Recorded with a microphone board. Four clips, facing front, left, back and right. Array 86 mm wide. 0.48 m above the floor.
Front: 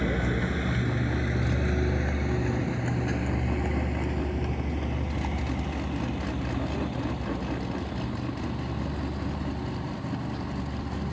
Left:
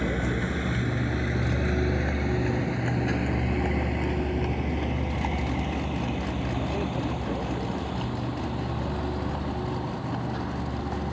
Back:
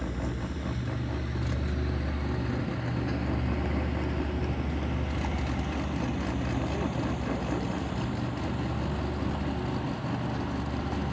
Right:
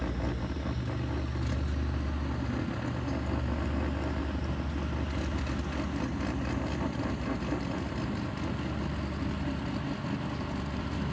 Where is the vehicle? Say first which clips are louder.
Left 7 dB, front 6 dB; 45° left; by 11.1 s 105° left.